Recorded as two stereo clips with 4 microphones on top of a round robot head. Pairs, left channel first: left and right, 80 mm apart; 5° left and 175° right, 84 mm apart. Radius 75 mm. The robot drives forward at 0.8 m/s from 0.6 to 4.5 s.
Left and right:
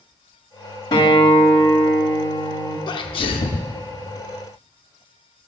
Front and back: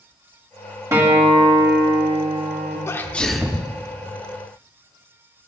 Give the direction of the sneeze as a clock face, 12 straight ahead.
10 o'clock.